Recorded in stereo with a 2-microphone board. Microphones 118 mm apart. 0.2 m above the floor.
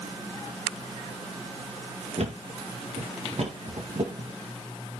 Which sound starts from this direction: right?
A thud, at 2.2 s.